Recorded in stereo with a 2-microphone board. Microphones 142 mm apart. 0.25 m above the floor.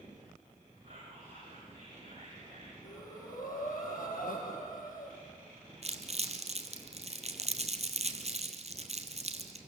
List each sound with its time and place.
0.8 s whispering: 50° right (ahead or behind), 9 m
2.8 s breathing: 75° left (ahead or behind), 6 m
5.8 s crumpling: 50° right (ahead or behind), 1.9 m